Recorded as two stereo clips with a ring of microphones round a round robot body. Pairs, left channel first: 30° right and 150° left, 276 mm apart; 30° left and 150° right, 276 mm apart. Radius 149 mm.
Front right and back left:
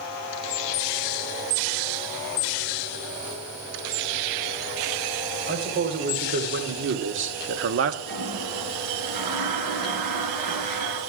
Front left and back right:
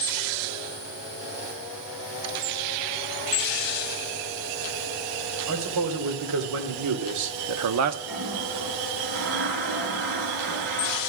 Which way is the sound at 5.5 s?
155° right.